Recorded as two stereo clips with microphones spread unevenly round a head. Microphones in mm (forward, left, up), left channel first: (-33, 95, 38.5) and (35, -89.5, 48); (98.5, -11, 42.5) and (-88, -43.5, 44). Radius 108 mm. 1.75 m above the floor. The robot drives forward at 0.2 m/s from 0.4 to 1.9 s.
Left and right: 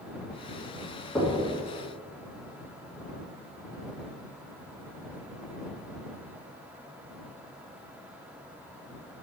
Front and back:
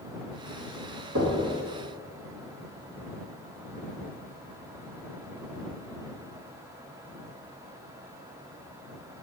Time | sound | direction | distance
1.1 | knocking | 165° right | 2 m